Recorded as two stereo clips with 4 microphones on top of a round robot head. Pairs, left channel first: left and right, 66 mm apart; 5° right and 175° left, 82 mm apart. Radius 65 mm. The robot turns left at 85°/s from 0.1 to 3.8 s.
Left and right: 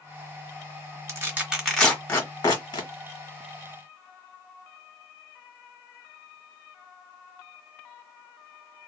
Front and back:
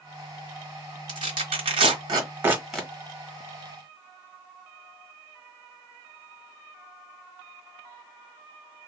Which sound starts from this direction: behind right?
Tearing paper, at 1.1 s.